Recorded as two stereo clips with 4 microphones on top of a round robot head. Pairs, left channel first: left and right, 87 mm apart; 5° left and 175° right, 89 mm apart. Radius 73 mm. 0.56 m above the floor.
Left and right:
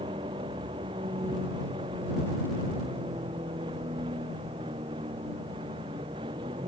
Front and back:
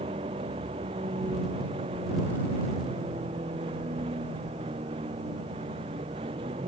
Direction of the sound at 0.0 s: 135° right.